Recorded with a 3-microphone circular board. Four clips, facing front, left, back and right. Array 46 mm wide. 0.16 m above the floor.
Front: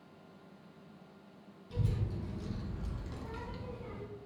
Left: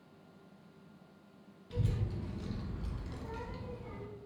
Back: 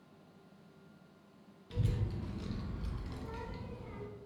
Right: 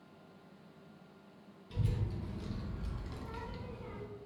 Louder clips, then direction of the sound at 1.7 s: Left 1 dB, front 1 dB; 160° left.